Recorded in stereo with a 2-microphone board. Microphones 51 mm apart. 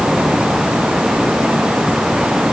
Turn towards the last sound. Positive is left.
No sound to turn to.